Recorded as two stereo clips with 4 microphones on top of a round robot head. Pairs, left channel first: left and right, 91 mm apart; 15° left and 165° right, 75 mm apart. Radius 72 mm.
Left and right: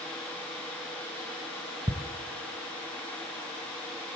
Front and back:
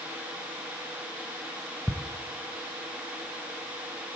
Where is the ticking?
85° right, 0.6 m.